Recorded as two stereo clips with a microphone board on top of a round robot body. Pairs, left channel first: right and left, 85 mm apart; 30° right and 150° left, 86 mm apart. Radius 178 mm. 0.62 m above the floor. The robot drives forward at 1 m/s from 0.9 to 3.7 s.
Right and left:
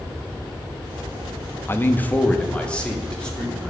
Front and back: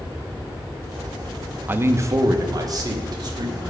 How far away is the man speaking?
About 0.9 m.